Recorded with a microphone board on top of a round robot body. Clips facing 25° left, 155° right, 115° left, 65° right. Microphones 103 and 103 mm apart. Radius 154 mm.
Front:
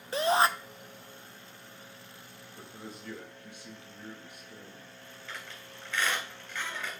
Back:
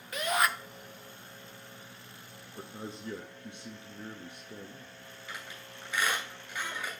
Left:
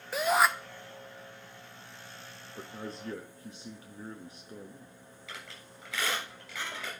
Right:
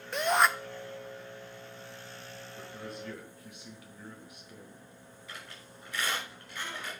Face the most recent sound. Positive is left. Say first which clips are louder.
# even, left 1 dB
turn(degrees=120)